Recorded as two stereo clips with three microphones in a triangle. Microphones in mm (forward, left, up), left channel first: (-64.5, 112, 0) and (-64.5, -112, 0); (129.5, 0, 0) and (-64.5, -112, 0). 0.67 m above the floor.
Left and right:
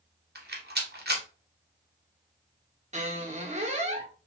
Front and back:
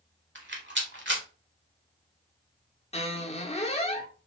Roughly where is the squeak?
Ahead right.